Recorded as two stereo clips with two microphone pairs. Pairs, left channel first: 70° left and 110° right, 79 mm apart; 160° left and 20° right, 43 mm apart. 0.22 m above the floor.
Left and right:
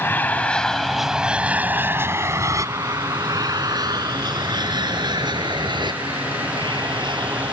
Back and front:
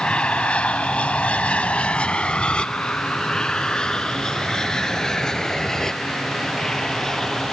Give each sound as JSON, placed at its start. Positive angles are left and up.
{"t": 0.0, "sound": "an aircraft", "azimuth_deg": 110}